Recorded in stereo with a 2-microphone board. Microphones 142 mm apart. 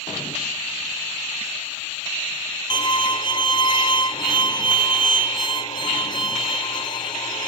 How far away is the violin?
About 1.1 m.